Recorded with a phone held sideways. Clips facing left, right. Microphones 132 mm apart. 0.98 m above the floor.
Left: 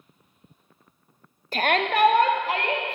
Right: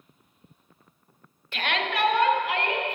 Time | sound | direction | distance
1.5 | a shout | 40° left (ahead or behind) | 0.6 m